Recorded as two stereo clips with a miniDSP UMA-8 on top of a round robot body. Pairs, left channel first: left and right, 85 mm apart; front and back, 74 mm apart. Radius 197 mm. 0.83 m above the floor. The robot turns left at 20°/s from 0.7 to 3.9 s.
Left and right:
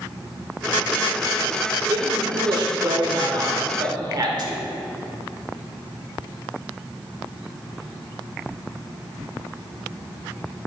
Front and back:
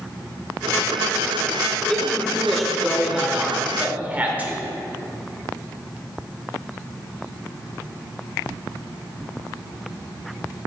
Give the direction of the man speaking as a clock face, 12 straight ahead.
2 o'clock.